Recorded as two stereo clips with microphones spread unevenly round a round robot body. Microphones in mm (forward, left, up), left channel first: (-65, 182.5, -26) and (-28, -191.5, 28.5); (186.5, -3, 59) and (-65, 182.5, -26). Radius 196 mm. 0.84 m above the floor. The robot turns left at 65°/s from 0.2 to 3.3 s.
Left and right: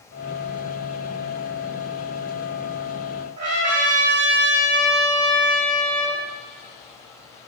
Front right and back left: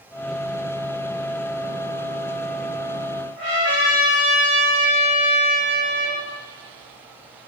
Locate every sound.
3.4 s a trumpet: 140° right, 2.5 m